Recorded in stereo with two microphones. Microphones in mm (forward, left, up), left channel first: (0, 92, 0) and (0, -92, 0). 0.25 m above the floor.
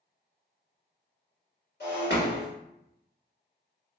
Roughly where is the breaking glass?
Left.